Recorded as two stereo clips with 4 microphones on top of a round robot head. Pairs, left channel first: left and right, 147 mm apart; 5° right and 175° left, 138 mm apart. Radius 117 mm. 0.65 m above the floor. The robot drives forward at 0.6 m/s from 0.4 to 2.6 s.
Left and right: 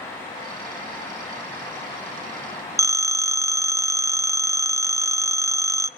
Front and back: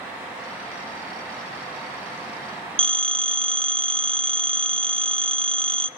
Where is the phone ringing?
155° right, 0.8 m.